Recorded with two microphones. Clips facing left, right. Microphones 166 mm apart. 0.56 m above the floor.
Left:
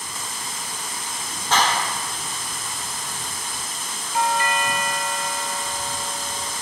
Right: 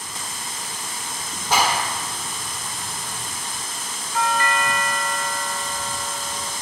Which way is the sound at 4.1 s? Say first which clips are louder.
Even; 20° left (ahead or behind).